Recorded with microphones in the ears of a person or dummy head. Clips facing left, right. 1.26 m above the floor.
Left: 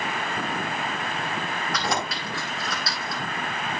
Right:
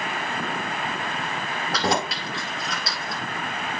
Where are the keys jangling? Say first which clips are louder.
Right 5 dB; 35° right (ahead or behind), 2.5 m; by 3.2 s 20° right (ahead or behind), 3 m.